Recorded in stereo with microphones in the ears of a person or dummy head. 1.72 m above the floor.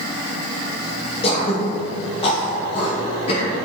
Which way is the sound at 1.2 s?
35° left (ahead or behind).